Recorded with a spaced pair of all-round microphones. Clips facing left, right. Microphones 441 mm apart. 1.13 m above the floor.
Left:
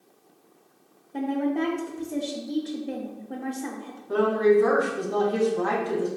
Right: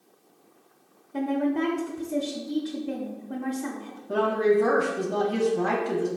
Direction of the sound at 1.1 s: 20° right (ahead or behind).